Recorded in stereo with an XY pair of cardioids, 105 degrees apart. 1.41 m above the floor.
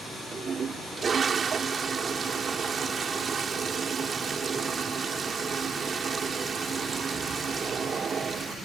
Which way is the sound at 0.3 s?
45° right.